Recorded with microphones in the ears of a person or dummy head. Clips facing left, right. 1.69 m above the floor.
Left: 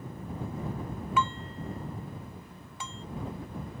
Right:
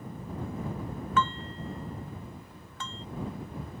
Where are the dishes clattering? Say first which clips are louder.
Right 1 dB; 10° left (ahead or behind).